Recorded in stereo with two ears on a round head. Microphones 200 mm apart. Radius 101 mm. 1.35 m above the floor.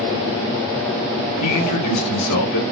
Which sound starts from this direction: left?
A man speaking, at 1.4 s.